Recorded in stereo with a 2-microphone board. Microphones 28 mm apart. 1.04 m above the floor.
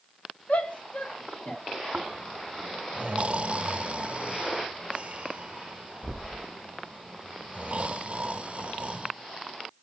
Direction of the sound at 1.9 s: 40° right (ahead or behind).